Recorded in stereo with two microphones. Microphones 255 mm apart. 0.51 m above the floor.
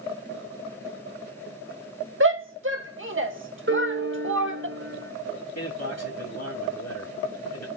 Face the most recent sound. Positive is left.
turn(degrees=75)  # may be behind; listen again after turning